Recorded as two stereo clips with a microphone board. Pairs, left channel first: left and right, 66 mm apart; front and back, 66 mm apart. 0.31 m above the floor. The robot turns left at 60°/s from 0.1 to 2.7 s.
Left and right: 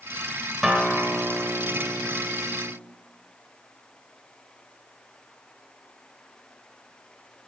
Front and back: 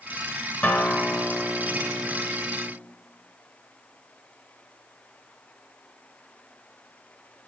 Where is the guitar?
15° right, 0.6 m; by 2.7 s 135° right, 0.6 m.